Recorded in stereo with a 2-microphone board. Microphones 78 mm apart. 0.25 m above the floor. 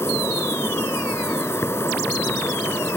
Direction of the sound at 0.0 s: 30° left (ahead or behind).